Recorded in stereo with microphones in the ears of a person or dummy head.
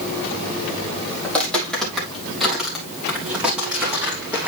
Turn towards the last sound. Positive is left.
turn(degrees=-5)  # may be behind; listen again after turning